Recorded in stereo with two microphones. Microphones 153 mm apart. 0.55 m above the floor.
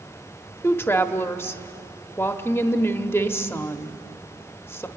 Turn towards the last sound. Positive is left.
turn(degrees=15)  # may be behind; listen again after turning